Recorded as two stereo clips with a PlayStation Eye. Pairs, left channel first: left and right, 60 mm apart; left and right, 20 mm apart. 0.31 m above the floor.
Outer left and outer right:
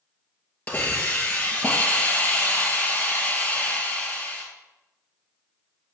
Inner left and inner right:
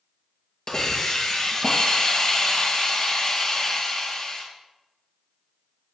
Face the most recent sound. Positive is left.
turn(degrees=25)  # may be behind; listen again after turning